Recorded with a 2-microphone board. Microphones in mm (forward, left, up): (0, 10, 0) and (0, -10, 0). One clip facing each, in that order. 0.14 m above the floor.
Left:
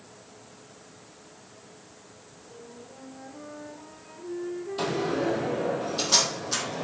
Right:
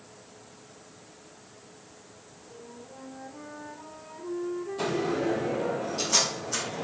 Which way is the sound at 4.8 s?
55° left (ahead or behind).